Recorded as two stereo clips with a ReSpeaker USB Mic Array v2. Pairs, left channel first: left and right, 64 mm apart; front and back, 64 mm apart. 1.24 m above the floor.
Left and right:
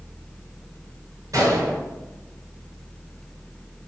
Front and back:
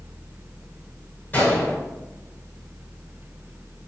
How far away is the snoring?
I don't hear snoring.